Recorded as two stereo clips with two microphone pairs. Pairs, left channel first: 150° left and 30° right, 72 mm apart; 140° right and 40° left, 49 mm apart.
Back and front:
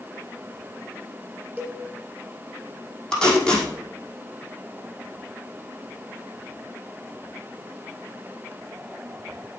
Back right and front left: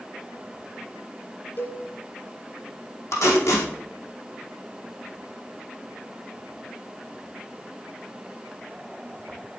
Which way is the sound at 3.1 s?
135° right.